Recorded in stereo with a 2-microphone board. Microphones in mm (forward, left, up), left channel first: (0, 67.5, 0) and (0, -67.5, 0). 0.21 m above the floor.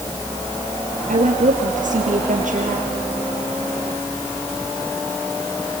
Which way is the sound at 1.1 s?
75° right (ahead or behind).